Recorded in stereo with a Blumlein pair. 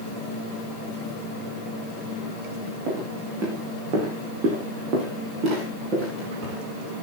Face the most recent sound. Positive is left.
turn(degrees=-35)